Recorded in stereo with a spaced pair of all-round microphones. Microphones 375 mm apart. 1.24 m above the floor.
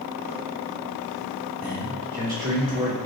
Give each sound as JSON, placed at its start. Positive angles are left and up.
{"t": 1.6, "sound": "a man speaking", "side_deg": -75, "distance_m": 2.5}